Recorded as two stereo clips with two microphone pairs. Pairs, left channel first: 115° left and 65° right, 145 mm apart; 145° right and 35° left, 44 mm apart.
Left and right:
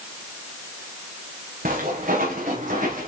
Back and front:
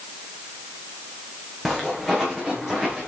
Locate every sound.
1.6 s footsteps: 50° right, 4 m; by 3.1 s 45° right, 5 m